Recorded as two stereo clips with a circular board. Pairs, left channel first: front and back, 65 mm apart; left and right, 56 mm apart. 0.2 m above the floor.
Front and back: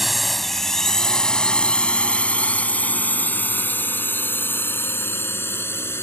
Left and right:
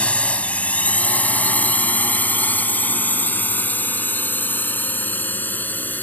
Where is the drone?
95° left; by 6.0 s 45° left.